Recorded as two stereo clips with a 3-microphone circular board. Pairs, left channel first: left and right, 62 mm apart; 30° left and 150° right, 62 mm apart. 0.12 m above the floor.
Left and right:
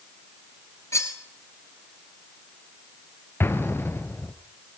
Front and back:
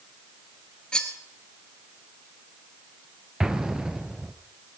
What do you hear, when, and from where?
0.9 s cutlery clinking: 105° left, 1.3 m
3.4 s an explosion: 135° left, 1.0 m